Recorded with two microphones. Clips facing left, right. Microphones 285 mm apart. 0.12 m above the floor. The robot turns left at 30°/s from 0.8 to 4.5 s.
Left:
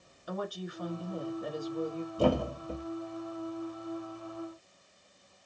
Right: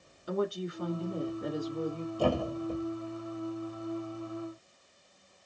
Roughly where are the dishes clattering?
I don't hear dishes clattering.